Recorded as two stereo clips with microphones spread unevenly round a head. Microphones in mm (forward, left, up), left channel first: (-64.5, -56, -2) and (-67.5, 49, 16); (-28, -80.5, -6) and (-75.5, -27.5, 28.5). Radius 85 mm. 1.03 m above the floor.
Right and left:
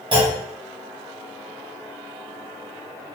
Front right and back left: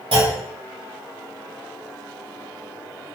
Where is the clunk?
135° left, 1.6 m.